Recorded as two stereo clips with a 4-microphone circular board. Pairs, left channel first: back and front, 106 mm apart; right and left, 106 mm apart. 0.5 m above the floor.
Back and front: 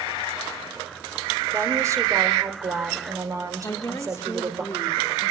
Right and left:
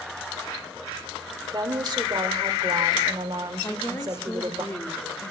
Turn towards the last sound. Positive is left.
turn(degrees=-140)